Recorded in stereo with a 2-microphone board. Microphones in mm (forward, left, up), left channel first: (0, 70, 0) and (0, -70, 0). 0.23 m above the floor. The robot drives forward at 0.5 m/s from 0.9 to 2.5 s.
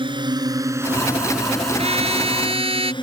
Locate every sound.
0.0 s a drone: 35° right (ahead or behind); by 3.0 s 35° left (ahead or behind)
1.8 s a trumpet: 50° right (ahead or behind); by 2.9 s 45° right (ahead or behind)